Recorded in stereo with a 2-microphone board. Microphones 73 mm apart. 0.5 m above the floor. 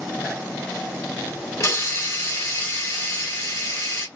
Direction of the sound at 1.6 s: 45° left (ahead or behind).